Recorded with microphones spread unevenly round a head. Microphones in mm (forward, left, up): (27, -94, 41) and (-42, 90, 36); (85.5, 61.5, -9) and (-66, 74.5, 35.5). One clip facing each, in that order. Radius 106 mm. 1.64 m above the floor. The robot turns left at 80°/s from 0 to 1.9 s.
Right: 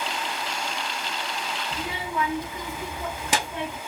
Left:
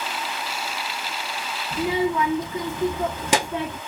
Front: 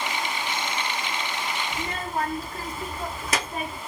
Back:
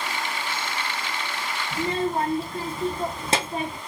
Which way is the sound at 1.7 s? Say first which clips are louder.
Left 11 dB, back 10 dB; 140° left.